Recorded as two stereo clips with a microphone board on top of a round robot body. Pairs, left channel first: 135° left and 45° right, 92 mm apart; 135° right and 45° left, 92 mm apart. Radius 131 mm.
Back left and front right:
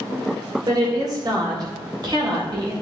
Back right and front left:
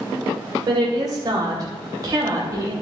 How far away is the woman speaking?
About 2.5 m.